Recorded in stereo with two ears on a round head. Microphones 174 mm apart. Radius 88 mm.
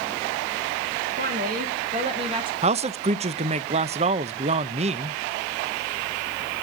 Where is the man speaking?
35° right (ahead or behind), 0.6 m.